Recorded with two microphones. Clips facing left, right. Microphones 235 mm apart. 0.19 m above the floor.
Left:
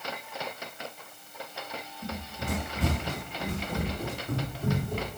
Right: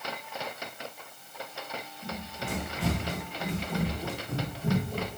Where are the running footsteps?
40° left (ahead or behind), 5 m; by 5.1 s 55° left (ahead or behind), 4 m.